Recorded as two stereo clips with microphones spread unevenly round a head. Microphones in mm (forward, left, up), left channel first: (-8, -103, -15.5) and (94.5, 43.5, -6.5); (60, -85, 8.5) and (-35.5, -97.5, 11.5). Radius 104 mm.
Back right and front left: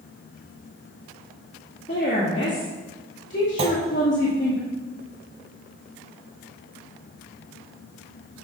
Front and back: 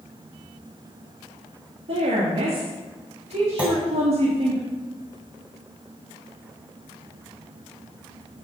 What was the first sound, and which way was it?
A woman speaking, straight behind.